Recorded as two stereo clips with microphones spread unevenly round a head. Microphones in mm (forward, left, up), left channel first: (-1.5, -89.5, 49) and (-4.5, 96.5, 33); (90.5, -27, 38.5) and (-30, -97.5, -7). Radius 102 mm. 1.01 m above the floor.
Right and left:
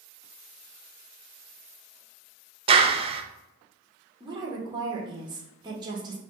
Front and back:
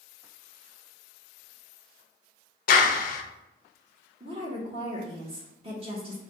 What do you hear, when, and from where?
2.7 s a clap: 50° left, 0.5 m
4.2 s a woman speaking: 160° left, 1.3 m